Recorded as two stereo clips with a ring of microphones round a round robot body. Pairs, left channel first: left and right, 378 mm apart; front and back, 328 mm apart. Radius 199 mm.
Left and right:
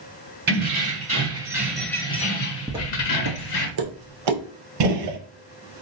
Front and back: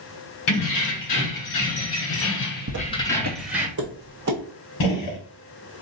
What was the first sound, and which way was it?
Keys jangling, 25° right.